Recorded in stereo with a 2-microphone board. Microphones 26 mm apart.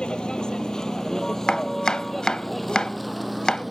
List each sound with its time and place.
0.0 s a vehicle: 35° left (ahead or behind); by 3.7 s centre (ahead or behind)
1.5 s chopping: 30° left (ahead or behind)